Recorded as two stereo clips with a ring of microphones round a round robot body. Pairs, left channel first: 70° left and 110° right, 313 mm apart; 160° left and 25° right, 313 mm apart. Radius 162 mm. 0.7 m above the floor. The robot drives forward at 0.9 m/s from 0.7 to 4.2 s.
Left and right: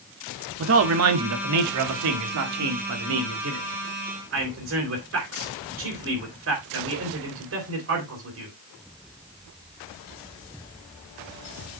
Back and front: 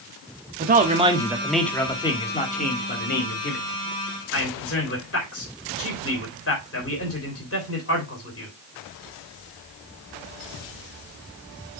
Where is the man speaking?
80° right, 1.5 m; by 8.5 s 155° right, 3 m.